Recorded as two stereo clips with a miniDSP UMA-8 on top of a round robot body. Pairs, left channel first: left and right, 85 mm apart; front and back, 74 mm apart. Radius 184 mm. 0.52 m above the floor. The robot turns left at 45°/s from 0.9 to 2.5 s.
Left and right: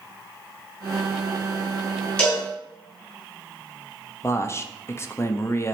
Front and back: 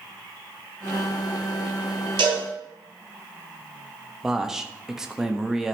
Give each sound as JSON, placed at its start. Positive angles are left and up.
{"t": 2.2, "sound": "a cowbell", "azimuth_deg": 165, "distance_m": 2.5}
{"t": 4.2, "sound": "a man speaking", "azimuth_deg": 105, "distance_m": 1.1}